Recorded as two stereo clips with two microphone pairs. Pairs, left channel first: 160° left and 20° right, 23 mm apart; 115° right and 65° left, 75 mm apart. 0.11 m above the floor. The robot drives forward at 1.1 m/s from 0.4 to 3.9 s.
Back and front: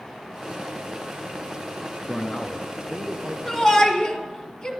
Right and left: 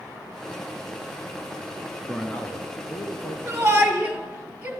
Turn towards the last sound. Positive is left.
turn(degrees=130)